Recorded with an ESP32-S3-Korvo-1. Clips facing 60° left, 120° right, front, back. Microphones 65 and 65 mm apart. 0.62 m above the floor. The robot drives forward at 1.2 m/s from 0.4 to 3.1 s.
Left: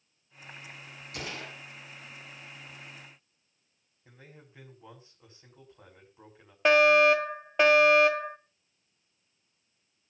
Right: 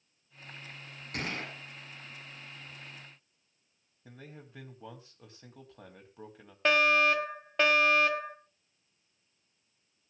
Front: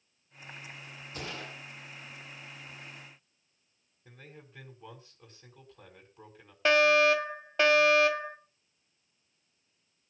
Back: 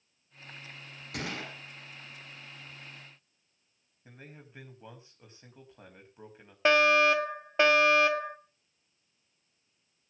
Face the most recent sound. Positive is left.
turn(degrees=135)